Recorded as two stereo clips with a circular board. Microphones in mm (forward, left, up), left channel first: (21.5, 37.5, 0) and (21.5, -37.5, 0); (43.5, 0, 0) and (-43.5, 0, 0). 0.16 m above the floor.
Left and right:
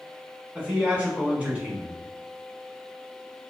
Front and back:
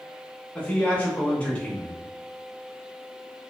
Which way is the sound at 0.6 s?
50° right.